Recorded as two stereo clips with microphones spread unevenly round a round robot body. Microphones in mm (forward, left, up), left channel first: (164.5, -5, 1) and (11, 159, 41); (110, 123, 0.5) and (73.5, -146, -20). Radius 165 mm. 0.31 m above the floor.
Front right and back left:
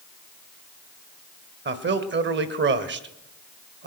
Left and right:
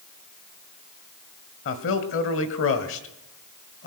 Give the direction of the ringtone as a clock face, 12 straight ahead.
I don't hear a ringtone.